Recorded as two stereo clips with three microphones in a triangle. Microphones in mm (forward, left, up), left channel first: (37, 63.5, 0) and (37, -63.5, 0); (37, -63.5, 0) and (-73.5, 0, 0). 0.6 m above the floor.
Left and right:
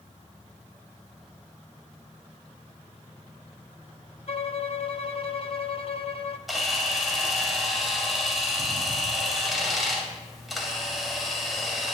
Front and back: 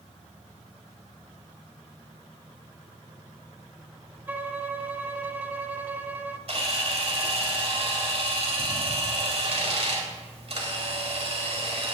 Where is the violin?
80° left, 0.5 m.